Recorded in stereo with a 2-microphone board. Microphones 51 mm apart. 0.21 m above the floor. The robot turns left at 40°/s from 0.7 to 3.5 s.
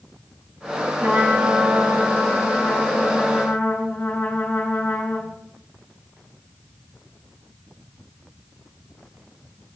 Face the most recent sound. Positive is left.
turn(degrees=135)